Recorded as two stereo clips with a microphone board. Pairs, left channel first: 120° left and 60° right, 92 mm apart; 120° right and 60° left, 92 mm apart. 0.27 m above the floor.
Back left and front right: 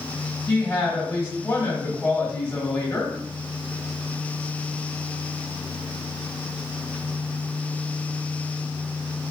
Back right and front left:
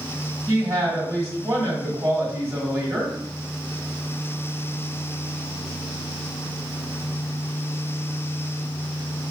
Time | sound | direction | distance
0.5 | a woman speaking | 70° left | 1.3 m